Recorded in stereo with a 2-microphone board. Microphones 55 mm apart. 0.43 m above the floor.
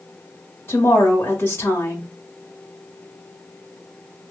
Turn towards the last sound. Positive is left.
turn(degrees=50)  # may be behind; listen again after turning